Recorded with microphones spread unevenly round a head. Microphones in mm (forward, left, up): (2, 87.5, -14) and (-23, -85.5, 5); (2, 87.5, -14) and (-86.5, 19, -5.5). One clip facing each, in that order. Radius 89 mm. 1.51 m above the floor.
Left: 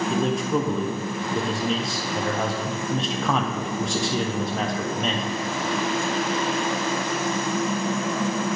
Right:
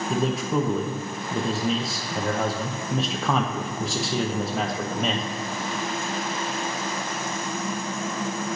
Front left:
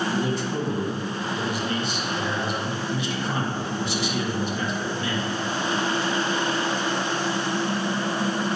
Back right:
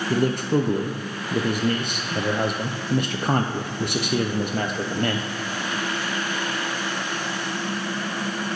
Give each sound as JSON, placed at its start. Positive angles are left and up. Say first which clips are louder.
{"t": 0.1, "sound": "a man speaking", "louder": "right 1 dB, back right 4 dB", "azimuth_deg": 175, "distance_m": 0.6}